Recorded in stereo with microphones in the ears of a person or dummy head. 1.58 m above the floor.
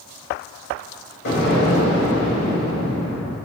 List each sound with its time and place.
1.2 s an explosion: 60° left (ahead or behind), 0.8 m